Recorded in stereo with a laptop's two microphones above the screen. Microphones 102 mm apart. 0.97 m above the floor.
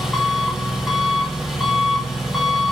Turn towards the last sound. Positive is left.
turn(degrees=-5)  # may be behind; listen again after turning